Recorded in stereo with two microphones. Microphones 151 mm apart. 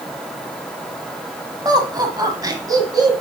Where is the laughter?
25° right (ahead or behind), 1.3 m.